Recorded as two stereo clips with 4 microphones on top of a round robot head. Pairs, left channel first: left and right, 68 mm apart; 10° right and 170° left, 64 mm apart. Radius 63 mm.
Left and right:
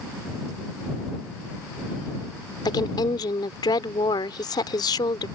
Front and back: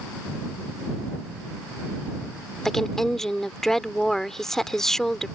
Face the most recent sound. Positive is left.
turn(degrees=75)